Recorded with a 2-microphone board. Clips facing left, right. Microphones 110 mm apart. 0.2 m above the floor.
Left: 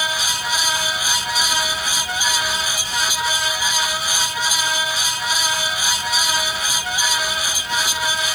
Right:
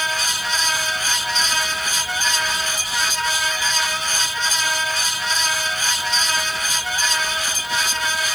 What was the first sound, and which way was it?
Only background noise.